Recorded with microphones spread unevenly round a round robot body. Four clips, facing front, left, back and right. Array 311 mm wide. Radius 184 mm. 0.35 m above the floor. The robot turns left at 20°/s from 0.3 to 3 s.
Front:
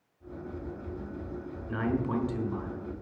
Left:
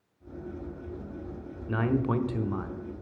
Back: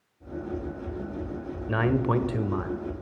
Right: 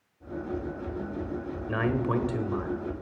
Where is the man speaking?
140° right, 1.4 m; by 2.8 s 160° right, 1.4 m.